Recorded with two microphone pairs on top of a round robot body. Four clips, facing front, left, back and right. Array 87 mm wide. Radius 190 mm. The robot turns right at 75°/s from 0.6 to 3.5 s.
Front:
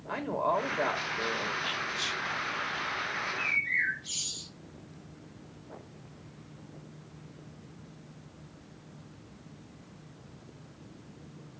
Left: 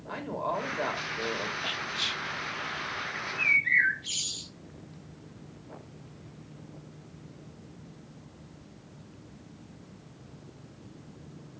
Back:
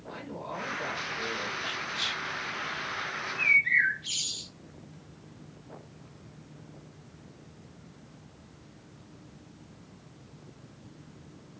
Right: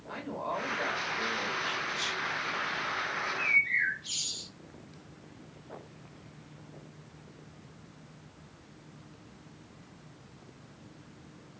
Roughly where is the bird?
Left.